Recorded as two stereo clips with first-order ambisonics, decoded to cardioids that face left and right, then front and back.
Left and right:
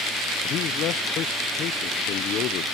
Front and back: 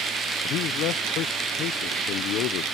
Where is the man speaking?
40° left.